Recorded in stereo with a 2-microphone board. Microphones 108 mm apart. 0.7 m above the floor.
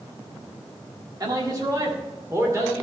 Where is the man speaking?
35° right (ahead or behind), 1.7 m; by 2.8 s 25° right (ahead or behind), 2.5 m.